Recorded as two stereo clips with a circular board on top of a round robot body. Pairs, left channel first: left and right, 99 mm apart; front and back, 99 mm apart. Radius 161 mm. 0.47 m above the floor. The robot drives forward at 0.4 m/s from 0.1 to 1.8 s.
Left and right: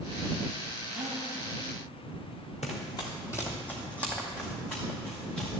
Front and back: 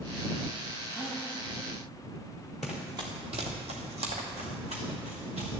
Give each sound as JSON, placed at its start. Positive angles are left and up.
{"t": 0.9, "sound": "a gasp", "azimuth_deg": -120, "distance_m": 2.5}
{"t": 2.6, "sound": "running footsteps", "azimuth_deg": 85, "distance_m": 0.5}